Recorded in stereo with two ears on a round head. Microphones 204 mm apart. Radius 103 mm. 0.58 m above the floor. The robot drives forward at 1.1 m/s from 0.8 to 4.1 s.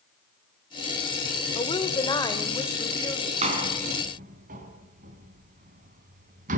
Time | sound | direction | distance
1.6 | a woman speaking | 25° left (ahead or behind) | 2 m
3.4 | a door slam | 30° right (ahead or behind) | 3.5 m